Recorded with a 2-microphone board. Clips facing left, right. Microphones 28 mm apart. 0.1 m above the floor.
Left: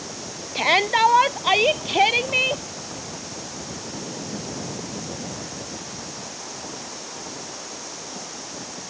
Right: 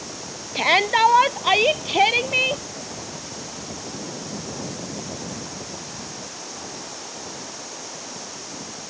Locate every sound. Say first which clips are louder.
0.6 s a shout: right 1 dB; 5° right (ahead or behind); by 2.6 s centre (ahead or behind)